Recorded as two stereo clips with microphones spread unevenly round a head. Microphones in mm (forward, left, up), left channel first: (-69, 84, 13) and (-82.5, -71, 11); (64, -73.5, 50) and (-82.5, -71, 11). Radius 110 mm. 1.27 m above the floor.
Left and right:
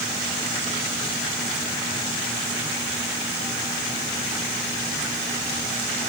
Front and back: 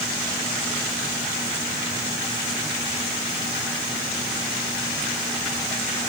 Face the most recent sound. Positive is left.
No sound to turn to.